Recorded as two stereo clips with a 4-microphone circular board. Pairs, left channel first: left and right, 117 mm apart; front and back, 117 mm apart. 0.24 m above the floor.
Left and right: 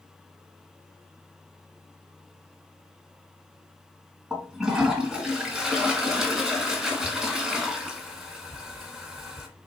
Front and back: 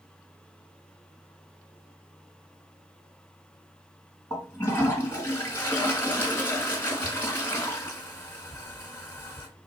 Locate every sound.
4.3 s a toilet flushing: 10° right, 1.3 m